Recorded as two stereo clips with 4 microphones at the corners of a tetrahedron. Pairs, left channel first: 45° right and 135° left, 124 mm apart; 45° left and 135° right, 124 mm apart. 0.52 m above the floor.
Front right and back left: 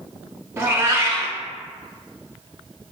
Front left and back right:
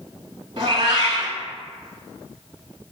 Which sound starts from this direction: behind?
A cat meowing, at 0.6 s.